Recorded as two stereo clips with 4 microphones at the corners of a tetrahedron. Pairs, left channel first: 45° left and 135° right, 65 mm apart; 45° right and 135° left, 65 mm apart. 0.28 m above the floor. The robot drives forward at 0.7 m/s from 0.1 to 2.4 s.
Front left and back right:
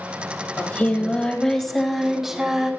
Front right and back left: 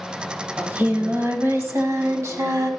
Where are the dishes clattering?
No dishes clattering in this recording.